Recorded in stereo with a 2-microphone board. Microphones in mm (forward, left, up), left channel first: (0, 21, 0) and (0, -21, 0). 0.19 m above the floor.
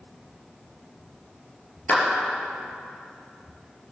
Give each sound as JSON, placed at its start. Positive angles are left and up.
{"t": 1.9, "sound": "a clap", "side_deg": 40, "distance_m": 3.0}